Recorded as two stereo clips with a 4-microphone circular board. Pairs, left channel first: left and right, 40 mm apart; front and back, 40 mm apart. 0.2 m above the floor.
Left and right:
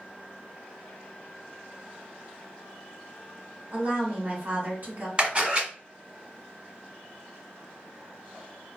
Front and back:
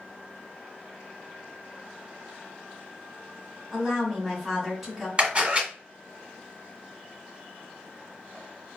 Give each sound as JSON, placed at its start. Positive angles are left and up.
{"t": 3.7, "sound": "a woman speaking", "azimuth_deg": -100, "distance_m": 1.6}
{"t": 5.2, "sound": "a camera shutter", "azimuth_deg": -135, "distance_m": 1.8}